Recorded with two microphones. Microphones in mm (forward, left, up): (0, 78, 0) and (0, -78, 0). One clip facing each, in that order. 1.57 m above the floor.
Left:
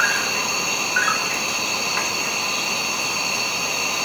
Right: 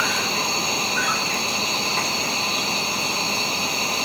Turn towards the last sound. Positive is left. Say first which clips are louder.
# right 1 dB
turn(degrees=-25)  # may be behind; listen again after turning